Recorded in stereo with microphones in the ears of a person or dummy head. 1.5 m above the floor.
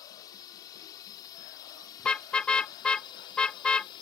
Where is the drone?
20° left (ahead or behind); by 4.0 s 25° left (ahead or behind).